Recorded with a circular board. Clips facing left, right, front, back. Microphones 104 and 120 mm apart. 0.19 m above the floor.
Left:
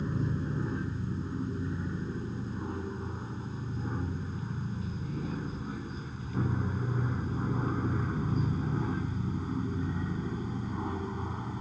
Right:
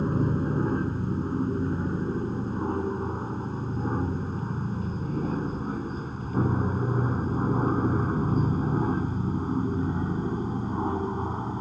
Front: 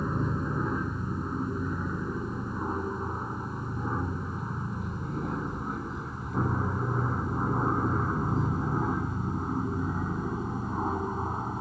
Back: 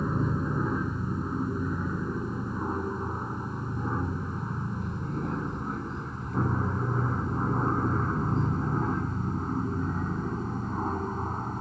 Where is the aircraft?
90° right; by 11.6 s 80° right.